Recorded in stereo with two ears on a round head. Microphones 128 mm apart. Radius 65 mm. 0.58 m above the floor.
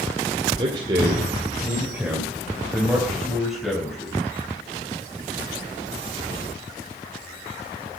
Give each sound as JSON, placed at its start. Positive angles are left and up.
{"t": 0.6, "sound": "a man speaking", "side_deg": -35, "distance_m": 2.0}